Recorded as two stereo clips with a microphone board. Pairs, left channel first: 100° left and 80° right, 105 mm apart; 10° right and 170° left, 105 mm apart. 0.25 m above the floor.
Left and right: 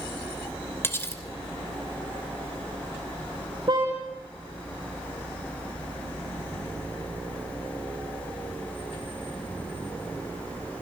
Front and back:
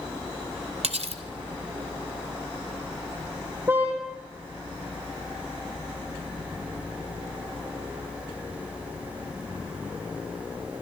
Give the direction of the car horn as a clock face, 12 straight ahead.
4 o'clock.